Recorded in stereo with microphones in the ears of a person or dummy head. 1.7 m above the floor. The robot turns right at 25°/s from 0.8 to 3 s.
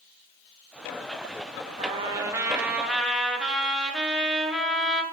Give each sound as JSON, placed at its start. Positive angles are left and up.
{"t": 1.8, "sound": "a trumpet", "azimuth_deg": -30, "distance_m": 1.1}